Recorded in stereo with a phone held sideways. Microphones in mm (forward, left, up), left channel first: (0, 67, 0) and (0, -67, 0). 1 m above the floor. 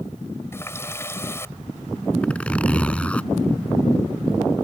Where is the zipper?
10° left (ahead or behind).